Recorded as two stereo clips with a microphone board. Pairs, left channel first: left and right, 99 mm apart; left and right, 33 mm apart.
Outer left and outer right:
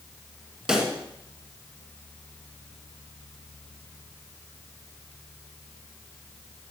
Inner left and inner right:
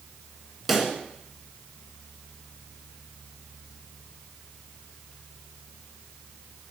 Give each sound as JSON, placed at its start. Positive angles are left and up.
{"t": 0.7, "sound": "a pop", "side_deg": -10, "distance_m": 1.8}